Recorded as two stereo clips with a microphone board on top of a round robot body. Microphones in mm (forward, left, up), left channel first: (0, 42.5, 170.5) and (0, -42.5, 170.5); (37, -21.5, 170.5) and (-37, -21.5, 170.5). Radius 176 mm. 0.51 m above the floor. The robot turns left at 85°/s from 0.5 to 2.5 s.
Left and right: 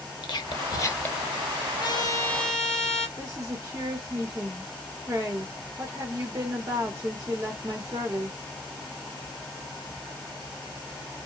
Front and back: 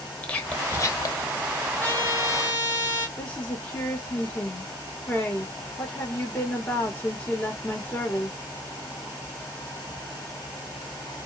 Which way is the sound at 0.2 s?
70° left.